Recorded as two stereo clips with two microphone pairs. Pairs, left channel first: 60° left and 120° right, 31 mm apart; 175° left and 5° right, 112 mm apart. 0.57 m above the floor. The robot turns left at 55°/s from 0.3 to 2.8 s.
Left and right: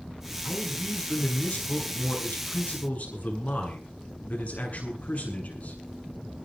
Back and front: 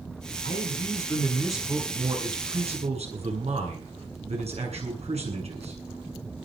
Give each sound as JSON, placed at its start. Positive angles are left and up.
{"t": 0.4, "sound": "a man speaking", "azimuth_deg": 145, "distance_m": 7.5}